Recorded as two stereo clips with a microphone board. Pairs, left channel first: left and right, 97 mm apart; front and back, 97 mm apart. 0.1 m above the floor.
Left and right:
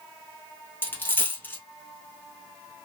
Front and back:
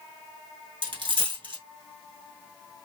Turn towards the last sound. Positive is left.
turn(degrees=155)